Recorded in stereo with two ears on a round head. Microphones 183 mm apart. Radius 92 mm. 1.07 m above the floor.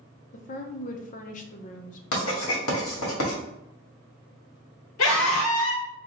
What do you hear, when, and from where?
0.3 s a woman speaking: 40° left (ahead or behind), 0.6 m
2.1 s writing: 80° left, 1.6 m
5.0 s a scream: 80° left, 1.4 m